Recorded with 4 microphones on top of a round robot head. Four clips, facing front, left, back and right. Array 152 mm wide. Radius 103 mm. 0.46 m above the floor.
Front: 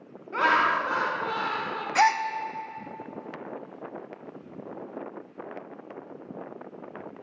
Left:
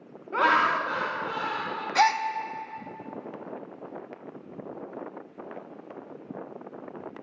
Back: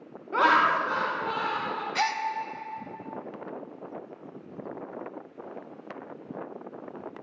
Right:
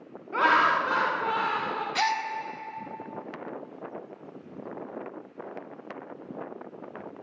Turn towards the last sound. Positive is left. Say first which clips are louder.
# left 6 dB, front 8 dB
turn(degrees=40)